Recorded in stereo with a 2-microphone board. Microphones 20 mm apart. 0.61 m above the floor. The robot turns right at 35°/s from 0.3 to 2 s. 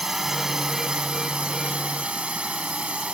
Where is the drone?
155° right; by 3.1 s 95° right.